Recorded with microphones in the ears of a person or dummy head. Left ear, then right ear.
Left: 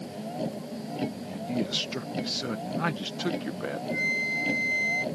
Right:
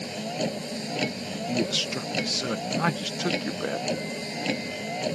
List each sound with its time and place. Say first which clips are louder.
0.0 s a vehicle: right 4 dB; 80° right
1.2 s a man speaking: right 4 dB; 20° right (ahead or behind)
3.9 s a flute: left 4 dB; 90° left